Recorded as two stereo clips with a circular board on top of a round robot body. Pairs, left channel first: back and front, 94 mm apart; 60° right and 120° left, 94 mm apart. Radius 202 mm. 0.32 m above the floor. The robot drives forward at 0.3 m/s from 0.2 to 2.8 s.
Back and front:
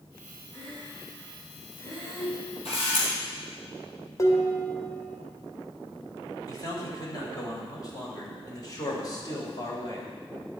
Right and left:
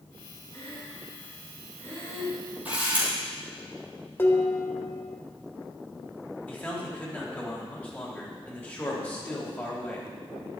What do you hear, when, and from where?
0.5 s breathing: 115° right, 4.5 m; by 2.4 s 120° right, 4.5 m
2.6 s a camera shutter: 165° right, 3.5 m
4.2 s dishes clattering: 125° right, 1.5 m
6.5 s a man speaking: 130° right, 3 m